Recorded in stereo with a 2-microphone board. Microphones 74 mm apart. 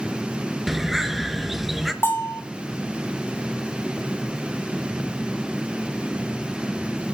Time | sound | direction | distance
0.7 | a bird | 5° right (ahead or behind) | 1.7 m
2.0 | a bell | 35° left (ahead or behind) | 3.5 m